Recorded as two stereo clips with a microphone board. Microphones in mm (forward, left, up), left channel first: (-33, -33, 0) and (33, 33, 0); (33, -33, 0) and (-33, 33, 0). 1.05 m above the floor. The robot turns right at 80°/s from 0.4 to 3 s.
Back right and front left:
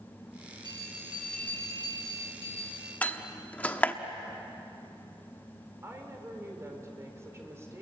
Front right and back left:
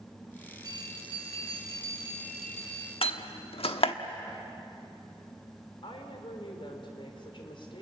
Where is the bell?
85° left, 5.5 m; by 2.9 s 95° right, 5.5 m.